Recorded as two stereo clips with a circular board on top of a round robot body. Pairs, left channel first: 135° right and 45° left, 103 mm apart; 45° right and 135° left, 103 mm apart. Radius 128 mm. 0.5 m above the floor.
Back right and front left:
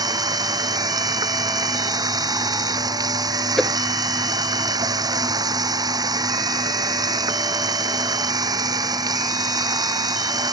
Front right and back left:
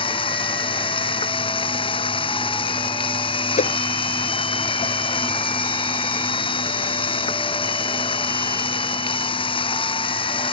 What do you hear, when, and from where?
0.0 s running water: 10° right
3.6 s a whoosh: 50° right